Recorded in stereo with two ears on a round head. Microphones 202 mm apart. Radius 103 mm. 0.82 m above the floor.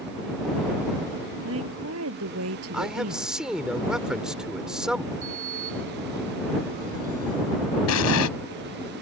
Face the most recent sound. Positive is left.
turn(degrees=70)  # may be behind; listen again after turning